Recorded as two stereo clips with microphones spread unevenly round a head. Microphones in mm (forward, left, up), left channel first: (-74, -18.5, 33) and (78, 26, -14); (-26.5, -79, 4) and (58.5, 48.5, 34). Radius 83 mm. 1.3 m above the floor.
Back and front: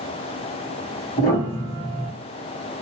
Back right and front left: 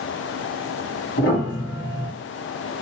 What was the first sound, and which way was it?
A piano, 140° right.